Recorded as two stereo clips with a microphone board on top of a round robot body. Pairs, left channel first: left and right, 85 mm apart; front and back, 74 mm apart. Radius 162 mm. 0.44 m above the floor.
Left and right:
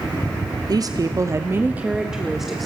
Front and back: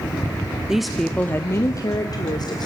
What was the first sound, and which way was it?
A woman speaking, 100° right.